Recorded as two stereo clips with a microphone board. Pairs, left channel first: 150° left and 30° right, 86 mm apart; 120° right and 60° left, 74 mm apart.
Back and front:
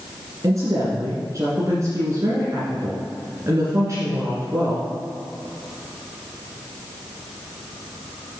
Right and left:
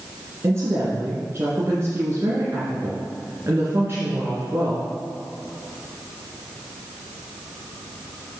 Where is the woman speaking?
15° left, 2.5 m.